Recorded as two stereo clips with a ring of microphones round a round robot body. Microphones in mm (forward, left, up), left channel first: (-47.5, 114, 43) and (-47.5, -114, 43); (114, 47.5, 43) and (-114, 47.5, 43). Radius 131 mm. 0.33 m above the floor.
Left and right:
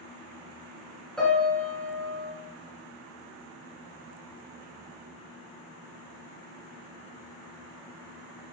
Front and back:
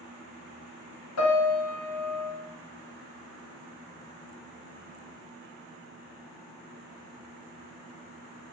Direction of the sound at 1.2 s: Straight ahead.